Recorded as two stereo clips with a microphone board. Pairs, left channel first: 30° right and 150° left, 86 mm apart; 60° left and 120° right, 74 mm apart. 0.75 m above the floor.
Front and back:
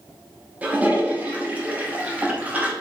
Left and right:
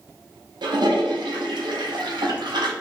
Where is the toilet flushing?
135° right, 0.8 m.